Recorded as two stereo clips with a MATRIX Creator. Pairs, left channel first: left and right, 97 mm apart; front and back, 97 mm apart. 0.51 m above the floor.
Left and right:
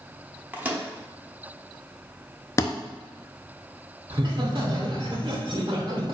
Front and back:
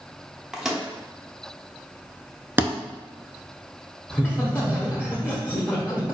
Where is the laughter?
65° right, 0.9 m.